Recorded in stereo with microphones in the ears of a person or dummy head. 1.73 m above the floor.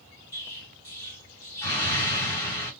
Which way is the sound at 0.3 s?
15° left (ahead or behind).